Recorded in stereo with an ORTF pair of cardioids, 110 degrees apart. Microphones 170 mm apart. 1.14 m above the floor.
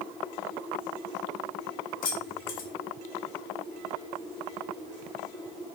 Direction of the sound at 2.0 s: 50° left.